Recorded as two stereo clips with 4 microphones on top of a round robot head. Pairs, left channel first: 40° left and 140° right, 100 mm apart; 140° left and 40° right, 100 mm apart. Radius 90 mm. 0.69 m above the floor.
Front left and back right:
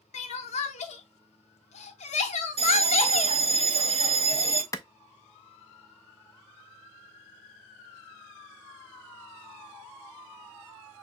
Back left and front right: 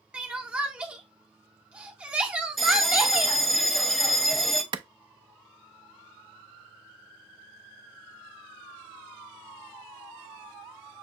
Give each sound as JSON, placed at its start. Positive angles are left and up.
{"t": 0.1, "sound": "crying", "azimuth_deg": 40, "distance_m": 0.7}
{"t": 2.6, "sound": "a bell", "azimuth_deg": -130, "distance_m": 0.8}
{"t": 4.7, "sound": "a clap", "azimuth_deg": -15, "distance_m": 0.5}